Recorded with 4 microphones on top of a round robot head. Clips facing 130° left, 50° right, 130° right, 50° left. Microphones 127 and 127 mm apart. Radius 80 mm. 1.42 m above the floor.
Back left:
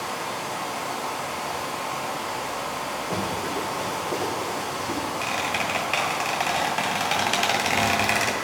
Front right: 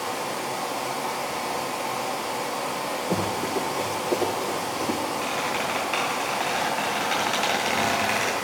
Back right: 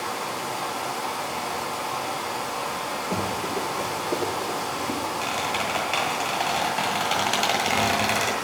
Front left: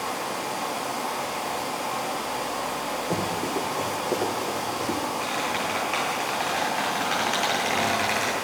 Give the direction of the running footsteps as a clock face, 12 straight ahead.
12 o'clock.